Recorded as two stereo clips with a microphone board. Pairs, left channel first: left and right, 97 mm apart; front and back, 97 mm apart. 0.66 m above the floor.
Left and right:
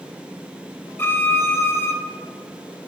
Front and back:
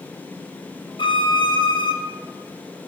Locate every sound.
1.0 s a violin: 25° left, 0.7 m